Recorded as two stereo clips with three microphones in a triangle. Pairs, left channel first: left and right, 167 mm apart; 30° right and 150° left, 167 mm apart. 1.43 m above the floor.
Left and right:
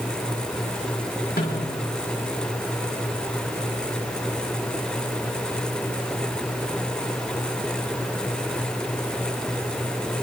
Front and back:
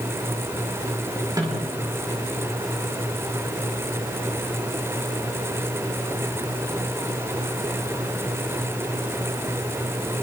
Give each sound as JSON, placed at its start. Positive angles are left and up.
{"t": 1.4, "sound": "a snare drum", "azimuth_deg": 85, "distance_m": 6.0}